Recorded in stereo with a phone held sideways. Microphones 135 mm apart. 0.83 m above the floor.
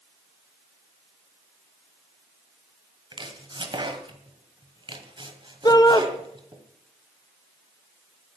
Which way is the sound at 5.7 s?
30° left (ahead or behind).